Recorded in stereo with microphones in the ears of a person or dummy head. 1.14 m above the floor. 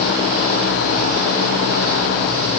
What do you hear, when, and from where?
Only background noise.